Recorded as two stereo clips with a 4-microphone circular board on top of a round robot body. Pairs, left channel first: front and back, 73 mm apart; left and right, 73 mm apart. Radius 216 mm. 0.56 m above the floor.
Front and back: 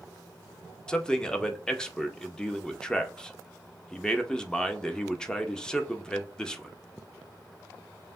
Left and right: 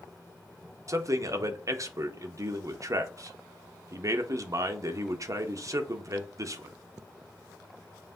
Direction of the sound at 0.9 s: 75° right.